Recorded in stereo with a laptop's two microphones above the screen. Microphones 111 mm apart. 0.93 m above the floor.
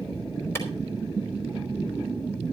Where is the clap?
20° left (ahead or behind), 4.5 m.